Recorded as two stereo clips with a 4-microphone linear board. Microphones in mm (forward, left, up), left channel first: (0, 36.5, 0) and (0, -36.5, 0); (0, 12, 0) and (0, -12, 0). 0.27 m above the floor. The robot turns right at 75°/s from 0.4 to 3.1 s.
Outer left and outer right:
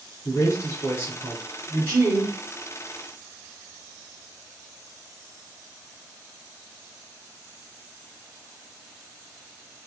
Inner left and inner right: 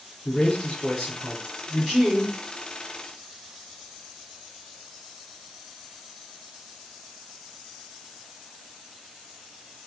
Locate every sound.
0.2 s a man speaking: 100° left, 2.5 m; by 2.3 s 115° right, 2.5 m